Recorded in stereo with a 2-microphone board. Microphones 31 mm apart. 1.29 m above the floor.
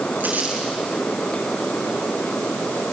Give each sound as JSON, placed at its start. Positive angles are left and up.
{"t": 0.2, "sound": "crumpling", "side_deg": -70, "distance_m": 7.0}